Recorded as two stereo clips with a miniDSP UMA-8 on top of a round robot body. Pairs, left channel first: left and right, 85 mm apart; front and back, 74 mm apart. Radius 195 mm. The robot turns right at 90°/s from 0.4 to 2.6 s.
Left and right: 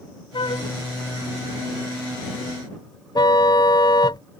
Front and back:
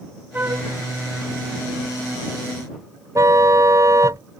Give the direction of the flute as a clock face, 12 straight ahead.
8 o'clock.